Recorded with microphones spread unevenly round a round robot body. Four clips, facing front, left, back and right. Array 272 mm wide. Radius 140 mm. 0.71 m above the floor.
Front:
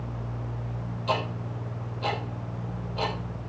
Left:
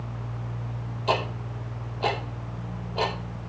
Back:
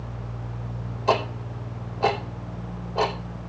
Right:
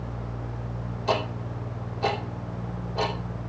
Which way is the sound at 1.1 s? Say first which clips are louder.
Even, back 6 dB; 170° left.